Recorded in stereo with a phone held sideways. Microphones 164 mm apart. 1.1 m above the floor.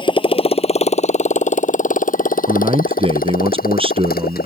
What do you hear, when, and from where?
0.0 s a motorcycle: 30° left (ahead or behind); by 4.5 s 60° left (ahead or behind)
2.5 s a man speaking: 35° right (ahead or behind)